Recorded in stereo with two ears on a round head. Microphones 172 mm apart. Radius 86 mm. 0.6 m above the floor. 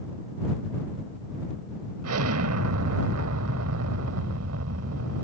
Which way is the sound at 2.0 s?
85° right.